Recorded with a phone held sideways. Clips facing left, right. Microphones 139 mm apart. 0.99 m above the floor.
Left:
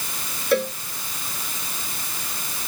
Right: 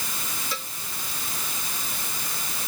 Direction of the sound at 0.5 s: 65° left (ahead or behind).